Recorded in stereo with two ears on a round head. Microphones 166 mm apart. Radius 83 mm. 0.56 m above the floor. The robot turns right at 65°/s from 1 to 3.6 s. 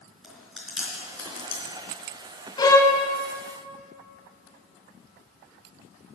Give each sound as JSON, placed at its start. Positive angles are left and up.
{"t": 0.2, "sound": "chewing", "side_deg": -5, "distance_m": 4.0}
{"t": 2.6, "sound": "a violin", "side_deg": 25, "distance_m": 1.4}